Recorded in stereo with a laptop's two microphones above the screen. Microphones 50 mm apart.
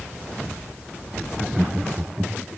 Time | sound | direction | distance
1.3 | laughter | 10° right (ahead or behind) | 0.6 m